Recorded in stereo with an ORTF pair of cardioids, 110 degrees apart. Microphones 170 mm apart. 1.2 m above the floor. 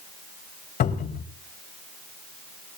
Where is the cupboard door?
55° left, 2.5 m.